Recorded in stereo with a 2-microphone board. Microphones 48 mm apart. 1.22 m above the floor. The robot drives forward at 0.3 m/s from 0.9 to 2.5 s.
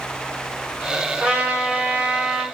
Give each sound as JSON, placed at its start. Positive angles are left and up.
{"t": 1.2, "sound": "a trumpet", "side_deg": -30, "distance_m": 1.8}